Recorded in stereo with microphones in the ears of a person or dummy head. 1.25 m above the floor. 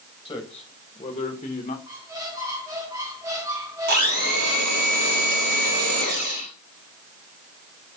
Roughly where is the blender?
Right.